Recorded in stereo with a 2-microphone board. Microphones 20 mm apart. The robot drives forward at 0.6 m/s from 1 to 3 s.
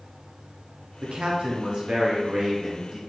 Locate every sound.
1.0 s a man speaking: 60° right (ahead or behind), 0.9 m; by 3.0 s 35° right (ahead or behind), 1.4 m